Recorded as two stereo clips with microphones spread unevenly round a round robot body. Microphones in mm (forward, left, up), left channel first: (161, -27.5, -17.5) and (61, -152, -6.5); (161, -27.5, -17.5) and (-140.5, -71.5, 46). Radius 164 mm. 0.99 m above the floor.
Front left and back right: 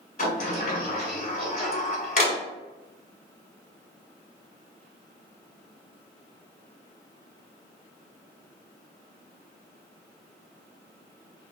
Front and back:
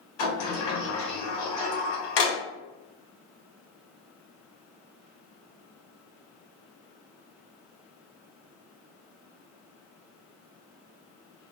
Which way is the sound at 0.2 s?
15° left.